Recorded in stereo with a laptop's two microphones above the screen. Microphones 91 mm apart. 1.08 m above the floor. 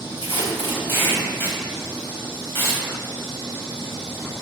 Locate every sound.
0.2 s tape being pulled: 25° left (ahead or behind), 3.5 m